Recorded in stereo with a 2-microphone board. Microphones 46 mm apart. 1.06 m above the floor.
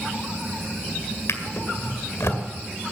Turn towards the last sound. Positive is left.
turn(degrees=80)